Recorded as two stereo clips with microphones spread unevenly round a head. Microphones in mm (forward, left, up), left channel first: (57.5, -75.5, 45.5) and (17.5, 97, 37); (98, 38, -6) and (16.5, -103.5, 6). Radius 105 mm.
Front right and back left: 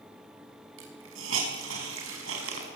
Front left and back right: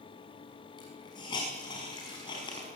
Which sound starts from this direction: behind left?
A hiss, at 0.8 s.